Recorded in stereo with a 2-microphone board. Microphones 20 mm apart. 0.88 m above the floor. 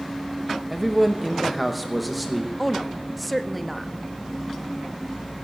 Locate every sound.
0.7 s a man speaking: 5° left (ahead or behind), 0.8 m
2.6 s a woman speaking: centre (ahead or behind), 0.8 m